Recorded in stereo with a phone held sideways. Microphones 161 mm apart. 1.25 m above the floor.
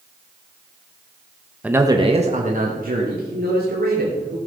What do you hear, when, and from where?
1.6 s a man speaking: 5° right (ahead or behind), 1.0 m; by 4.4 s 80° right, 3.5 m